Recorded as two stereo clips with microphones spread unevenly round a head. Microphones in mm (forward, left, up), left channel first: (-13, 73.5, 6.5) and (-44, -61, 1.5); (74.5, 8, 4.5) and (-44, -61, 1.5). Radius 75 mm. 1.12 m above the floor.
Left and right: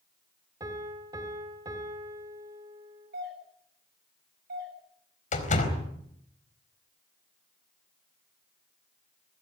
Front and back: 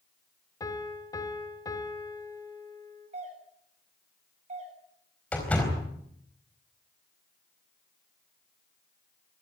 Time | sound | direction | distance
0.6 | a piano | 35° right | 2.5 m
3.1 | a doorbell | 110° right | 8.5 m
5.3 | a door slam | 110° left | 4 m